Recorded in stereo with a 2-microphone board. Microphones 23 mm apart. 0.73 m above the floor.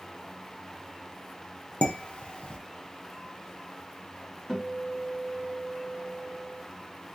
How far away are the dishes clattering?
About 0.7 m.